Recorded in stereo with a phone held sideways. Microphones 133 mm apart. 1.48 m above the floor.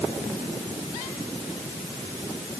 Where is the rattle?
I don't hear a rattle.